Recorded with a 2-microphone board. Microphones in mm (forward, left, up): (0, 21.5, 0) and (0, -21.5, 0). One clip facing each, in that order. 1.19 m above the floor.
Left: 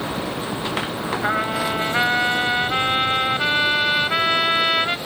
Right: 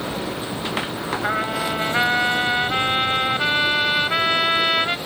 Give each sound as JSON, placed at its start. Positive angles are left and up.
{"t": 1.2, "sound": "a trumpet", "side_deg": 5}